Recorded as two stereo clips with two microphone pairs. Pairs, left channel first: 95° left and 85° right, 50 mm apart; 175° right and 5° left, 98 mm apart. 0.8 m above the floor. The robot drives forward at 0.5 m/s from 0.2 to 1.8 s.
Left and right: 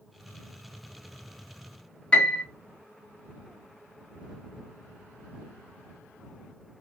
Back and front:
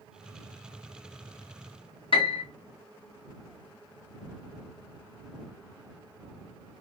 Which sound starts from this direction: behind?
A piano, at 2.1 s.